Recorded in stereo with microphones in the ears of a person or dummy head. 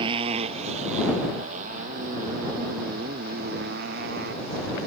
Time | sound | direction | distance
0.0 | a motorcycle | 30° right (ahead or behind) | ?